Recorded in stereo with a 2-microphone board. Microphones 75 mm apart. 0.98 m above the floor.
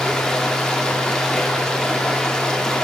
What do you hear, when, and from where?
0.0 s running water: 10° left (ahead or behind), 1.6 m